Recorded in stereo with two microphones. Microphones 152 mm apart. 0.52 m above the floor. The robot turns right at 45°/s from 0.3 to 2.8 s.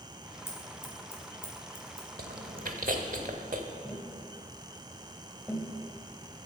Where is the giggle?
No giggle in this recording.